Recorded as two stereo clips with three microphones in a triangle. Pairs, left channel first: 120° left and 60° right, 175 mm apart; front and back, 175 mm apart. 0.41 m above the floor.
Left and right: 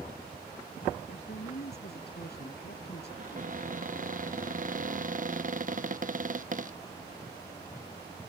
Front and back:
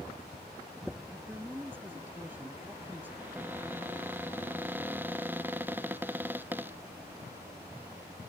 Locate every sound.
1.1 s a woman speaking: 100° left
3.2 s a cupboard door: 100° right